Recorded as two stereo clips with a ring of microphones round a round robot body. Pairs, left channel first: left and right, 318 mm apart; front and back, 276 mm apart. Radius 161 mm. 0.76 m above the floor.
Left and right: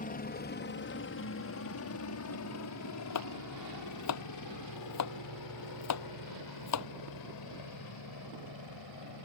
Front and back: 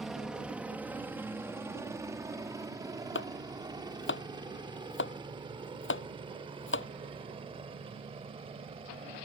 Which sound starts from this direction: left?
A helicopter, at 0.0 s.